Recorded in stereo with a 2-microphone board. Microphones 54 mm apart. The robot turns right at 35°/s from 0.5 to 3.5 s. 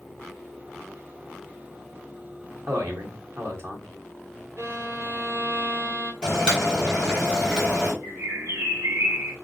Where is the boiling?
15° right (ahead or behind), 2 m.